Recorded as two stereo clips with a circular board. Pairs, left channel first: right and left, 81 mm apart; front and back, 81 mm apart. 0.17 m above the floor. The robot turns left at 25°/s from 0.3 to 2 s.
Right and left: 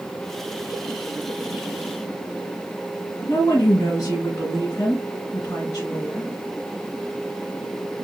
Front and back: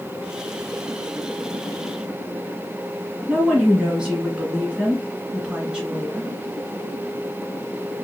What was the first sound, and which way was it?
A woman speaking, 105° right.